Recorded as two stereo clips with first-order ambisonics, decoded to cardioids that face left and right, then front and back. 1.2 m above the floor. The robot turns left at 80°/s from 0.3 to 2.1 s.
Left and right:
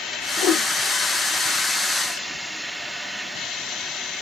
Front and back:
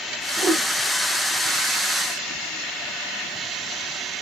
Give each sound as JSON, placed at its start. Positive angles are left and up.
{"t": 0.4, "sound": "a whoosh", "azimuth_deg": 115, "distance_m": 1.6}